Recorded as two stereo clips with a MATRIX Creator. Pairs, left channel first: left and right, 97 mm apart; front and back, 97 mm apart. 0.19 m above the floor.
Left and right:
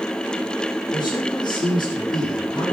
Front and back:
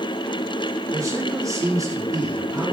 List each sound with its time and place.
0.9 s a man speaking: 125° left, 7.5 m